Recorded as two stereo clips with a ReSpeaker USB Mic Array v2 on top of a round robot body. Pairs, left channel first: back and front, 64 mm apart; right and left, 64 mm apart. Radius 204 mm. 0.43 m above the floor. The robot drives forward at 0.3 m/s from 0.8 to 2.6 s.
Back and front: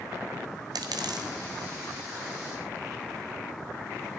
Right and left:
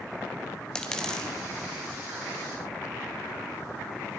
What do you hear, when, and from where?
0.8 s a dropped coin: 10° right, 1.6 m